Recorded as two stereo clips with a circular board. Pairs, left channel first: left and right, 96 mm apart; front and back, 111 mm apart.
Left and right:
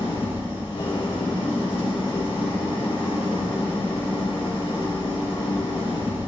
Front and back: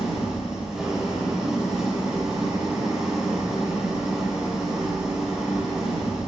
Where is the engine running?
95° left, 4 m.